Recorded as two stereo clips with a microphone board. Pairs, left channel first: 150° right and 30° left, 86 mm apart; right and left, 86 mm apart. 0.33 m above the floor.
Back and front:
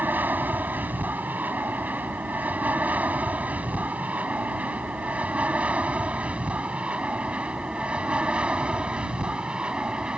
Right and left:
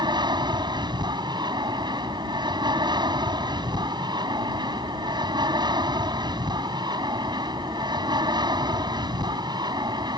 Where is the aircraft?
95° left; by 10.2 s 110° left.